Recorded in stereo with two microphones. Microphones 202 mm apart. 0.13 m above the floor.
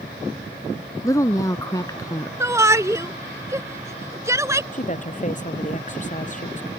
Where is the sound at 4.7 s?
40° left (ahead or behind).